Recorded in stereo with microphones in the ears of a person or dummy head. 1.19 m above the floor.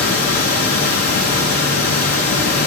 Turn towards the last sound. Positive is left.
turn(degrees=45)  # may be behind; listen again after turning